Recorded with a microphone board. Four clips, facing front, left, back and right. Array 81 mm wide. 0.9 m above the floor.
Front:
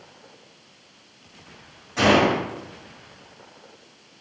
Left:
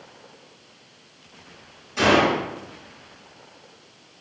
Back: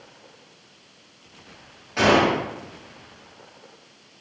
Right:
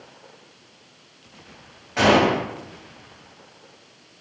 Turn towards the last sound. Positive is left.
turn(degrees=-110)